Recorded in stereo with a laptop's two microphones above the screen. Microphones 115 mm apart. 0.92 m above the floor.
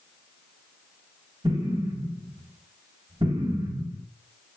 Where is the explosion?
40° right (ahead or behind), 1.8 m.